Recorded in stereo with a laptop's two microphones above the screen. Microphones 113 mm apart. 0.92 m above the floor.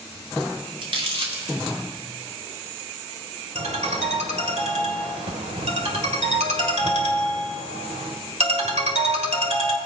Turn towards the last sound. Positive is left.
turn(degrees=-80)